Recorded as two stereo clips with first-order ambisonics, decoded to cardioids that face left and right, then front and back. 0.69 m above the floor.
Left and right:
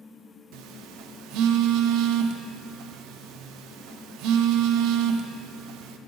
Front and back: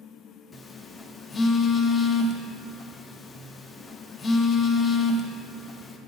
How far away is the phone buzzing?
About 0.5 m.